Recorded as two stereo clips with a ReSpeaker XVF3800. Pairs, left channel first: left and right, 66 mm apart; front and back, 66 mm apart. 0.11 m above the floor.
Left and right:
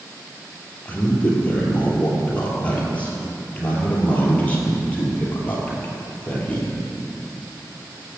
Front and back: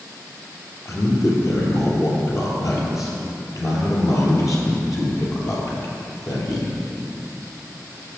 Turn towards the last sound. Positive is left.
turn(degrees=25)